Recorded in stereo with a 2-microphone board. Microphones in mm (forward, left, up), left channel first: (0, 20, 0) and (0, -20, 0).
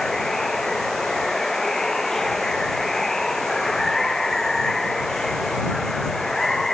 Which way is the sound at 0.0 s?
10° left (ahead or behind).